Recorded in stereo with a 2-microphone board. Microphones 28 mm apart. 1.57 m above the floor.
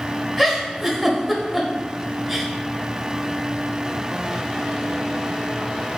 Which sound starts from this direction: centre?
A giggle, at 0.4 s.